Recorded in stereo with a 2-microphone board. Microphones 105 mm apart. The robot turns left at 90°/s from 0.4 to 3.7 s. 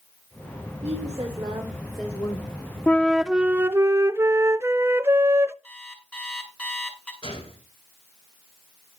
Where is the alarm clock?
15° left (ahead or behind), 4.5 m.